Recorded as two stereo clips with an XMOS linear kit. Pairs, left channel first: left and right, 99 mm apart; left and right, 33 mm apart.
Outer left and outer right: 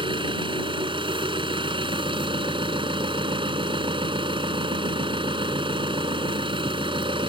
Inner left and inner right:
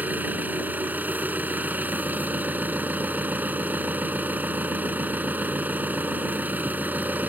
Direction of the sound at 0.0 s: 60° right (ahead or behind).